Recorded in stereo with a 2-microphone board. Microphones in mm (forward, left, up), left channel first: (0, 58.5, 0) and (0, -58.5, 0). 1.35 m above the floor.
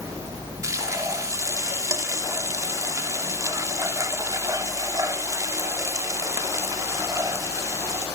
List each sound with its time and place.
0.6 s frying: 25° right (ahead or behind), 2.5 m